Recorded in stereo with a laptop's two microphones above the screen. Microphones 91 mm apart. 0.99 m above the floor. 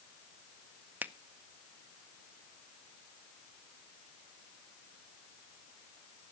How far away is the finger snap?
About 0.6 m.